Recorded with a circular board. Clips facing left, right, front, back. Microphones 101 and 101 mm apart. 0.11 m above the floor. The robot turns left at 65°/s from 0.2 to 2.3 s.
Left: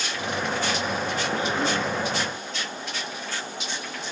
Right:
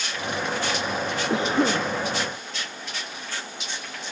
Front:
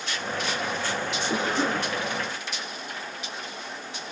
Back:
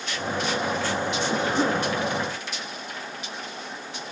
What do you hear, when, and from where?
1.3 s a cough: 80° right, 5 m; by 1.9 s 120° right, 5 m